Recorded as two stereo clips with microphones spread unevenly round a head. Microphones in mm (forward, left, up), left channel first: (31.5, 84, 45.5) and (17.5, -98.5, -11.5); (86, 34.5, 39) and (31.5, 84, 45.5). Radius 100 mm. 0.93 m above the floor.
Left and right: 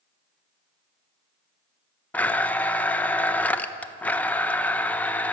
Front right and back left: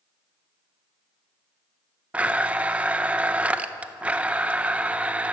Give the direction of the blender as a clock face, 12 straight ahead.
5 o'clock.